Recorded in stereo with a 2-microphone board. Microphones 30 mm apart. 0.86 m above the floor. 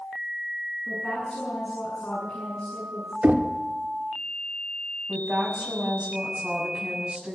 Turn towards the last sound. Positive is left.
turn(degrees=-40)  # may be behind; listen again after turning